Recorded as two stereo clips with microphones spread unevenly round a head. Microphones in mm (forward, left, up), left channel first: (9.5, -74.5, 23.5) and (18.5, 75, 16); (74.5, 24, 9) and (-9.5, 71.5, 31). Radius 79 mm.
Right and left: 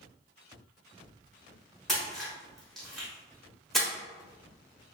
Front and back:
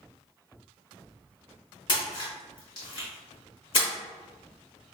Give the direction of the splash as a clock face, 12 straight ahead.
12 o'clock.